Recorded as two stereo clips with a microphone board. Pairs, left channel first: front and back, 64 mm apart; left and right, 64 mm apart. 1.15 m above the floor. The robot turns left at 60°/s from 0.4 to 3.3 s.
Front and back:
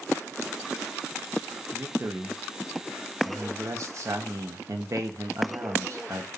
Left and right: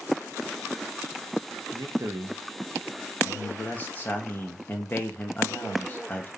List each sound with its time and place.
1.7 s a man speaking: 115° right, 1.7 m; by 6.3 s 150° left, 1.7 m